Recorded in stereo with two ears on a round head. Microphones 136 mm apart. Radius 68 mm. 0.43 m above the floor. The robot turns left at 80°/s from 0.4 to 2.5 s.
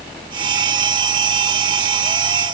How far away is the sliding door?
No sliding door in this recording.